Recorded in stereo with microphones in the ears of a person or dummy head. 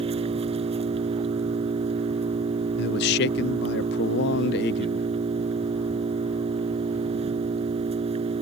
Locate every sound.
0.0 s an engine running: 30° right (ahead or behind)
2.8 s a man speaking: 55° left (ahead or behind)